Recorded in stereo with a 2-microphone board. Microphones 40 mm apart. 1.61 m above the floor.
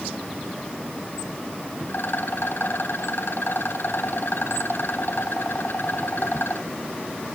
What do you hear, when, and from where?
1.9 s a rattle: 60° left (ahead or behind), 2.5 m